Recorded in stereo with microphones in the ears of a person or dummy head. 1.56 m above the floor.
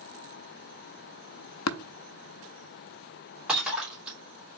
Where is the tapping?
75° left (ahead or behind), 0.6 m.